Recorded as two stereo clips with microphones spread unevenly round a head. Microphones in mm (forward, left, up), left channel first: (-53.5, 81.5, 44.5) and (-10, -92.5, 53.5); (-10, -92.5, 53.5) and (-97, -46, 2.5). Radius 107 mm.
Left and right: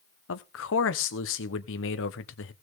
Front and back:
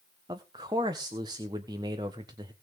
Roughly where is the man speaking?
Left.